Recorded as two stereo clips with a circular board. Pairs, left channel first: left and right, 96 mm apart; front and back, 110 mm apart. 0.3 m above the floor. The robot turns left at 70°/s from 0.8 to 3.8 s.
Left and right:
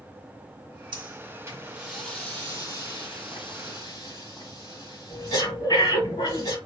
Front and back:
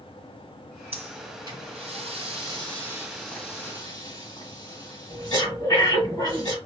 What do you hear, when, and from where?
0.9 s breathing: 105° right, 2.0 m; by 6.6 s 50° left, 2.0 m